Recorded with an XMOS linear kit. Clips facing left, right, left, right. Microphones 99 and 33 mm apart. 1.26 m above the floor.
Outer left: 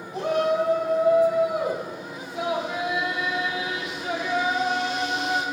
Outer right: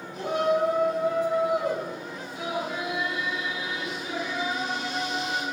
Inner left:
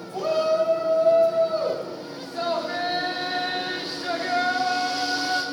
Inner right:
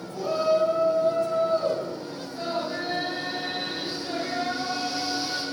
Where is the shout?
90° left, 3 m.